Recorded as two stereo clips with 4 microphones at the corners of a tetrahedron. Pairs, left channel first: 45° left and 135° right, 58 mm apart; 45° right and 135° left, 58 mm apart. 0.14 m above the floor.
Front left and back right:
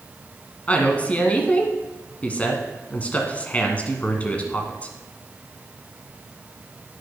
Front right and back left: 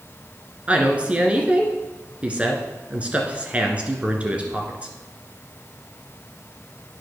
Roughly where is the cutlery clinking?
No cutlery clinking in this recording.